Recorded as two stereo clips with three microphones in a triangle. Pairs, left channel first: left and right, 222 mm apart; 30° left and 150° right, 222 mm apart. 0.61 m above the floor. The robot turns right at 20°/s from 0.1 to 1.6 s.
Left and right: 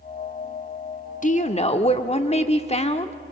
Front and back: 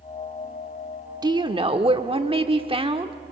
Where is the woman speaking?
140° left, 1.1 m; by 3.1 s 150° left, 1.1 m.